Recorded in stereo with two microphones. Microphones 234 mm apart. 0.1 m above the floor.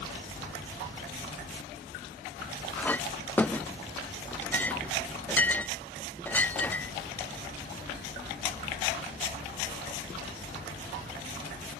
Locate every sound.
2.8 s a clink: 10° left (ahead or behind)